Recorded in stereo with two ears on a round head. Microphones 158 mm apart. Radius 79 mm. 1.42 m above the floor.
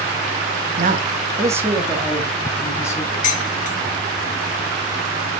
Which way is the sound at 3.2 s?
45° left (ahead or behind).